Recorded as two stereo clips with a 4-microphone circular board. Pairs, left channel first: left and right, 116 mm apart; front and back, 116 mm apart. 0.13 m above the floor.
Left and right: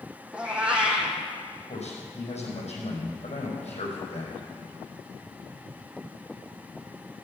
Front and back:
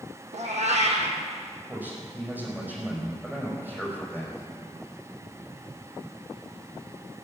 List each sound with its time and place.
0.3 s a cat meowing: 170° right, 2.0 m
1.7 s a man speaking: 105° left, 5 m